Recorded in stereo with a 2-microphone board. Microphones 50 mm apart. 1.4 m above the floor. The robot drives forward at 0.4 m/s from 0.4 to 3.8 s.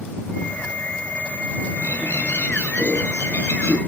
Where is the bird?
70° left (ahead or behind), 10 m; by 3.8 s 65° left (ahead or behind), 10 m.